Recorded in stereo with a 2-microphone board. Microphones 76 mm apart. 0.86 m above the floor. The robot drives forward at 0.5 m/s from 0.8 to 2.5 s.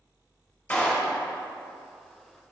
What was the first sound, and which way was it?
A clap, 20° left (ahead or behind).